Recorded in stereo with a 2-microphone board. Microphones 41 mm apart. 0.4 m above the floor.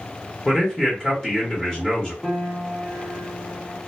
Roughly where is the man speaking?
Centre.